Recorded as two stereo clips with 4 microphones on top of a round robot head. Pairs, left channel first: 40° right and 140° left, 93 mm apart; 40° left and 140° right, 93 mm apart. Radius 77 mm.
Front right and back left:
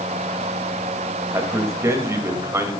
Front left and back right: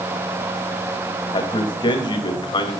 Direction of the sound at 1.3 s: 80° left.